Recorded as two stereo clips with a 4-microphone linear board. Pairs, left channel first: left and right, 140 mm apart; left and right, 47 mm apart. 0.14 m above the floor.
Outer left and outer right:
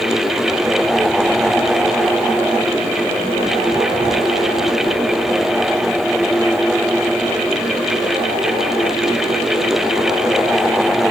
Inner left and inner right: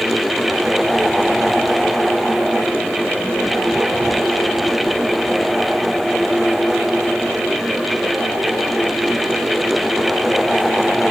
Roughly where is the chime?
No chime in this recording.